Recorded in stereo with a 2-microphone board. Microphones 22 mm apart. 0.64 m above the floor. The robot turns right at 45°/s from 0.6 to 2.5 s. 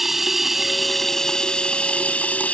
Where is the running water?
10° right; by 2.5 s 75° left.